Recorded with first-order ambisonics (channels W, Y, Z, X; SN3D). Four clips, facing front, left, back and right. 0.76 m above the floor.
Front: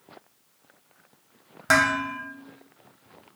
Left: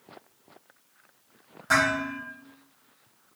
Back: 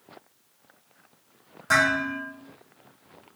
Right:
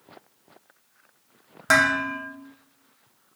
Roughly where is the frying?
I don't hear frying.